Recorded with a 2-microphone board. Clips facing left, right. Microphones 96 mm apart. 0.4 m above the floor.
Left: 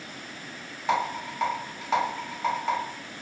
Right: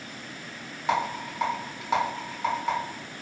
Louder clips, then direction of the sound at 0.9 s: Even; centre (ahead or behind).